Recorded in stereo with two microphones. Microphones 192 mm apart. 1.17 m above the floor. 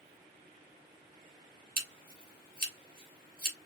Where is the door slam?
I don't hear a door slam.